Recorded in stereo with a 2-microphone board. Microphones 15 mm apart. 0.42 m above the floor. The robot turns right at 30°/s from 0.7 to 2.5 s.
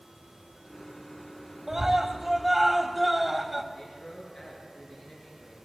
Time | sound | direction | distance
1.7 | a scream | 30° right (ahead or behind) | 2.0 m
3.7 | a man speaking | 40° left (ahead or behind) | 7.5 m